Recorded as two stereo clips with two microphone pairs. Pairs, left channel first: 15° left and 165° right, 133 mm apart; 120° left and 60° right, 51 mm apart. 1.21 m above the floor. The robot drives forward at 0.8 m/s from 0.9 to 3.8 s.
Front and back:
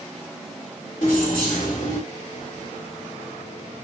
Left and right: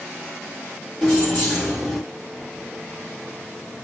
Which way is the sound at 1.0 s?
15° left.